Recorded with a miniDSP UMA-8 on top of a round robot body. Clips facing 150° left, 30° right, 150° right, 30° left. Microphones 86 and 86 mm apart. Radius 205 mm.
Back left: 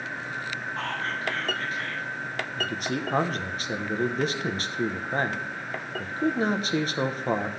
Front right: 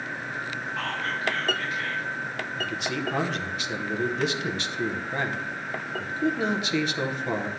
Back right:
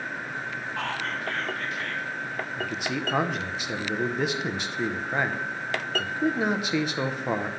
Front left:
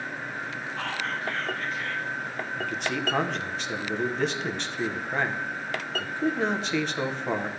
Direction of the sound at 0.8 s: 155° right.